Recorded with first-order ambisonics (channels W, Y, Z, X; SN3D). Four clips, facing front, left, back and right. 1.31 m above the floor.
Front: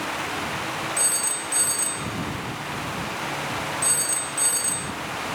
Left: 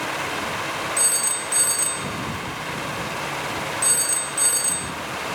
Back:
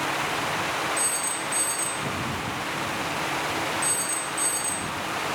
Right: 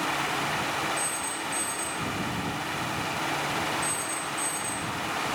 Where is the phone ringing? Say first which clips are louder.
Left 6 dB, front 1 dB; 70° left.